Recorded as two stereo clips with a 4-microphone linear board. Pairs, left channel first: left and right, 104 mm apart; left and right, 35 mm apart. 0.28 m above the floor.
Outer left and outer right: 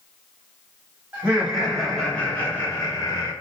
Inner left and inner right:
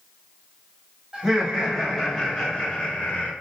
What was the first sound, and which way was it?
Laughter, 15° right (ahead or behind).